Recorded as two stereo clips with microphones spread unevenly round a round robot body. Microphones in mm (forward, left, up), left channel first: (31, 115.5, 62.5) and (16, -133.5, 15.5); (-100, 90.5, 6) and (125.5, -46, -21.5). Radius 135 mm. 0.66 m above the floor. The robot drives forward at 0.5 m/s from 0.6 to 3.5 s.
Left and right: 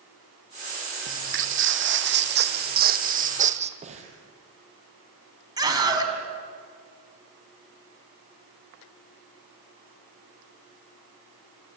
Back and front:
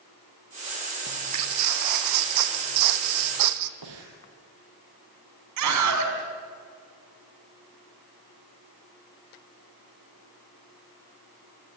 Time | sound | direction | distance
1.1 | footsteps | 55° right | 1.9 m
3.8 | breathing | 30° right | 4 m
5.6 | a scream | 20° right | 5.5 m